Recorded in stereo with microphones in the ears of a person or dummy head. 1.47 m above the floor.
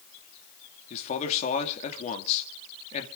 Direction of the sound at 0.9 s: 35° left (ahead or behind).